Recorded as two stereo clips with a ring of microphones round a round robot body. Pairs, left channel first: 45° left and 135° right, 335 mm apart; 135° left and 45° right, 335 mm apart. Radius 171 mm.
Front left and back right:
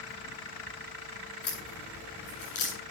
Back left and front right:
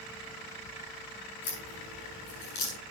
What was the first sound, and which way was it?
A crack, 95° left.